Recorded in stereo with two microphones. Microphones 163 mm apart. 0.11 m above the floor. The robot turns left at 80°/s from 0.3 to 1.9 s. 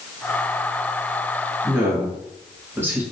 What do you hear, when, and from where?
1.6 s a woman speaking: 5° right (ahead or behind), 1.3 m; by 3.0 s 15° right (ahead or behind), 1.3 m